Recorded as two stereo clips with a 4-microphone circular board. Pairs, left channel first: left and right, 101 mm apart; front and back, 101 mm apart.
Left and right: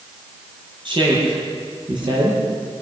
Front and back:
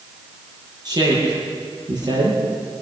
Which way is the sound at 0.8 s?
130° right.